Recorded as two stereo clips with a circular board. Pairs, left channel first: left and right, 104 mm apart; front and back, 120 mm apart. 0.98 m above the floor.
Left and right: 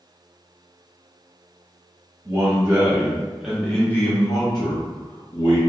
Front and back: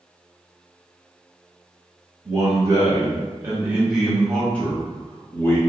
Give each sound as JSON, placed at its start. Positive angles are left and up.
{"t": 2.2, "sound": "a man speaking", "azimuth_deg": -135, "distance_m": 1.0}